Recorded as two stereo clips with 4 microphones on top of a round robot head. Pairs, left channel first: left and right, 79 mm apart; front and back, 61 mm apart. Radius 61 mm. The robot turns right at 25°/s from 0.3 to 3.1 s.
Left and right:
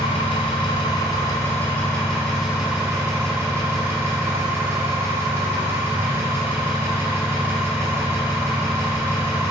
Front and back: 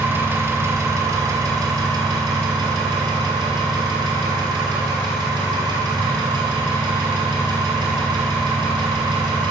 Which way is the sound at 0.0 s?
130° left.